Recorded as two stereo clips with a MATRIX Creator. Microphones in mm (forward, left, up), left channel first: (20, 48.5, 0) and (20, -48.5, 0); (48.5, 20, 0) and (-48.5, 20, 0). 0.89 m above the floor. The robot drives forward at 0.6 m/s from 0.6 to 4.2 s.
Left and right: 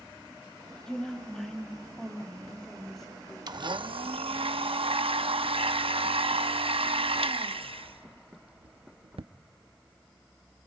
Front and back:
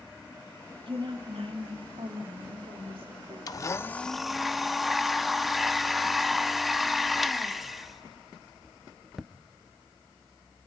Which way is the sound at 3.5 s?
50° right.